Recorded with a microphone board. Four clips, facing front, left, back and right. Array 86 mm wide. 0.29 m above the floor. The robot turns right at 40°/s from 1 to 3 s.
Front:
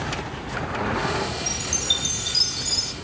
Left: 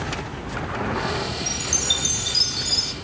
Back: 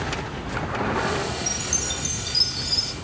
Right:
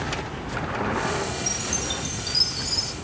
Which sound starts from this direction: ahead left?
A chime, at 1.5 s.